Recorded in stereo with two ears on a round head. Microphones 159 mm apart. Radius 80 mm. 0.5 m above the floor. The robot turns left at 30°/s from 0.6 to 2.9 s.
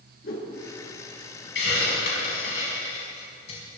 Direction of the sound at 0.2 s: 55° left (ahead or behind).